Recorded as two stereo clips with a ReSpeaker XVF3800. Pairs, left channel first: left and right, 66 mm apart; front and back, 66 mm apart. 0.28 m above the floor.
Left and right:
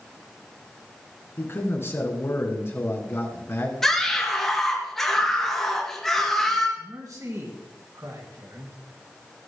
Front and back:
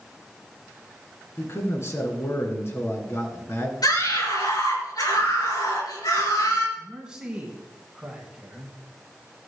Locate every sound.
1.4 s a man speaking: 45° left, 2.5 m
3.8 s a scream: 5° left, 4 m
6.8 s a man speaking: 105° right, 3 m